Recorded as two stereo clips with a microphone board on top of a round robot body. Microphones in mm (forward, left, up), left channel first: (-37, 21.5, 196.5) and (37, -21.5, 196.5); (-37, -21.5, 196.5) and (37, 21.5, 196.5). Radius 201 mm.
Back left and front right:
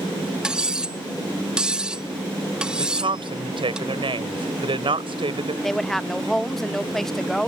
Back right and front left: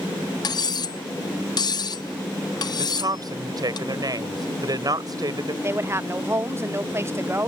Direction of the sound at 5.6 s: 65° left.